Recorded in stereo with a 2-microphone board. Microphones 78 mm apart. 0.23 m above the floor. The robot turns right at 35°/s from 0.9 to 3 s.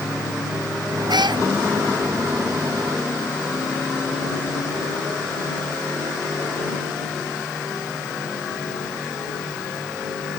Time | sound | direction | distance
1.1 | a cat meowing | 65° right (ahead or behind) | ?